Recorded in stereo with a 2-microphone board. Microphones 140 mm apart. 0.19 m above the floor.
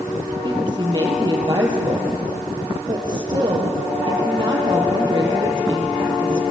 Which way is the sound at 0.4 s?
35° right (ahead or behind).